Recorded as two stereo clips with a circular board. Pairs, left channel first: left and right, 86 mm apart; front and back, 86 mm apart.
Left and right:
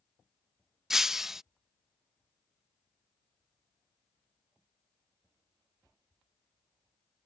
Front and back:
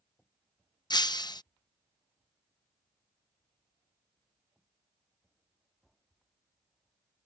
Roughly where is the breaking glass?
Ahead.